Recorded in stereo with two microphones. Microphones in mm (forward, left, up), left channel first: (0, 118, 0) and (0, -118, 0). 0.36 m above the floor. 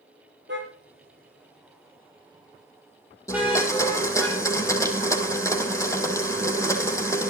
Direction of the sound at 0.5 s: 50° right (ahead or behind).